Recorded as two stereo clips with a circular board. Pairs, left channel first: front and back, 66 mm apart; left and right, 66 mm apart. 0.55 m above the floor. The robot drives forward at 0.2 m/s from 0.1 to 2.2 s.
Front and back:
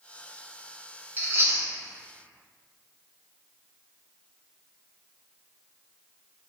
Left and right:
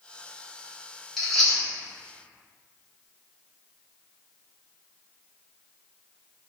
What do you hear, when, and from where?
1.2 s chewing: 175° left, 1.1 m